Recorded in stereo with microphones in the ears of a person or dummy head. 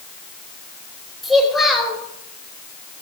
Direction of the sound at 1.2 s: 5° right (ahead or behind).